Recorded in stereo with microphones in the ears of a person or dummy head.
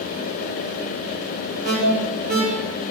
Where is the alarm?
50° right (ahead or behind), 9 m.